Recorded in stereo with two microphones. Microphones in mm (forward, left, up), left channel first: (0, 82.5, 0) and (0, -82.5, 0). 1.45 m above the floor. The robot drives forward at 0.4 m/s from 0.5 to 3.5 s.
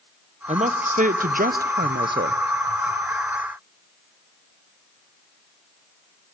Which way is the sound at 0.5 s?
45° right (ahead or behind).